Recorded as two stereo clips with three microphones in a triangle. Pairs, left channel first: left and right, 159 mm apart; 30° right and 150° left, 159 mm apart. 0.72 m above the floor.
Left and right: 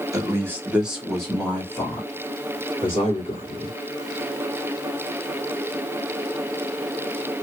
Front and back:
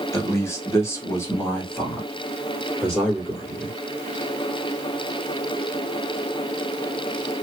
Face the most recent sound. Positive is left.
turn(degrees=50)